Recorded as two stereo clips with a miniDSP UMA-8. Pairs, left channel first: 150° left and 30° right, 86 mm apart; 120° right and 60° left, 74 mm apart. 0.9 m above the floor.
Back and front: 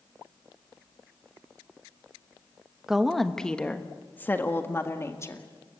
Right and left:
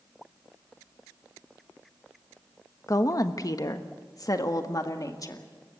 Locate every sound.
2.9 s a woman speaking: 110° right, 1.1 m; by 5.5 s 155° right, 2 m